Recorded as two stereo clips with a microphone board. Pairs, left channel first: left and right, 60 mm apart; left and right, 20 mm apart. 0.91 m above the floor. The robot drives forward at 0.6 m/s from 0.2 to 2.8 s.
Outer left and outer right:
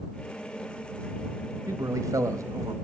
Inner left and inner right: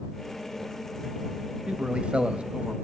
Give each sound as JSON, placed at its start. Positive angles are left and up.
{"t": 1.7, "sound": "a man speaking", "side_deg": -60, "distance_m": 1.3}